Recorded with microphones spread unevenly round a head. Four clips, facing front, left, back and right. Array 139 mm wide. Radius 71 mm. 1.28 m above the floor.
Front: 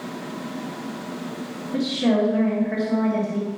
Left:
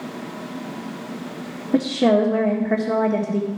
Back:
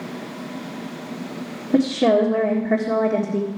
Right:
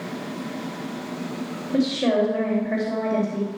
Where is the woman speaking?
135° left, 1.7 m.